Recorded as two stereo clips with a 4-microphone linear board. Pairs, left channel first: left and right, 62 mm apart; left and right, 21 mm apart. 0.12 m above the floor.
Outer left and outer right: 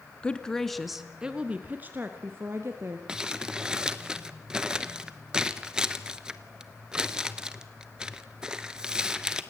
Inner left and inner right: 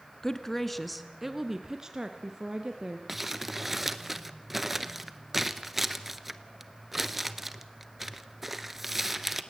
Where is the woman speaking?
20° left (ahead or behind), 1.1 m; by 3.0 s 45° right (ahead or behind), 1.7 m.